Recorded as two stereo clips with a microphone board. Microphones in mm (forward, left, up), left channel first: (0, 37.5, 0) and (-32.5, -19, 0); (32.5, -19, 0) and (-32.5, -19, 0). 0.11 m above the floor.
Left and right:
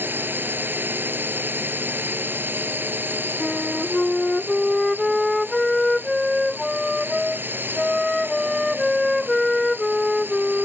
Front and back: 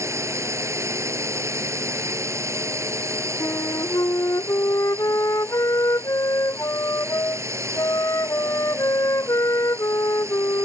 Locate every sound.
0.0 s a drone: 165° right
3.4 s a flute: 30° right